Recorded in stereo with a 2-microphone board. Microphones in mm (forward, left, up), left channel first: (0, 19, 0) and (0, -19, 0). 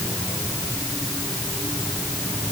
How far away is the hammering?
I don't hear hammering.